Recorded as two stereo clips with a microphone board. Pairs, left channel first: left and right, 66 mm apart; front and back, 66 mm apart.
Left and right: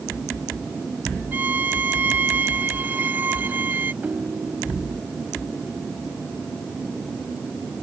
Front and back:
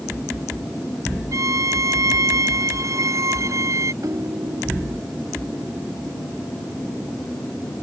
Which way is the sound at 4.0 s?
150° right.